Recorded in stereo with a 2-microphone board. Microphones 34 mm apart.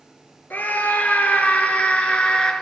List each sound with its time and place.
0.5 s a scream: 60° left (ahead or behind), 2.5 m; by 2.5 s 25° left (ahead or behind), 1.9 m